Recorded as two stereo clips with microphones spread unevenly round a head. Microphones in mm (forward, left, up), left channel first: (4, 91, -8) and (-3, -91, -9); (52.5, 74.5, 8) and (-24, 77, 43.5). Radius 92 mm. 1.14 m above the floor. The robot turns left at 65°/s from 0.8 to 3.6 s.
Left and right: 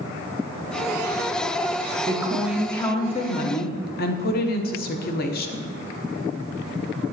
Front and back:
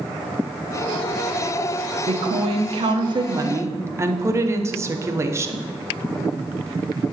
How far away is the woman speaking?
About 0.8 m.